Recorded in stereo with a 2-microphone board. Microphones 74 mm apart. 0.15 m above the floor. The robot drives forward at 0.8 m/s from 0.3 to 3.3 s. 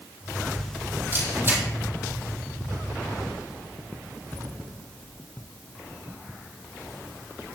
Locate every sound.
1.1 s a camera shutter: 30° right (ahead or behind), 4 m; by 1.6 s 35° right (ahead or behind), 3.5 m